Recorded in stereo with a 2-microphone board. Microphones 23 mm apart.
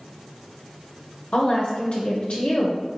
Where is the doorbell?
I don't hear a doorbell.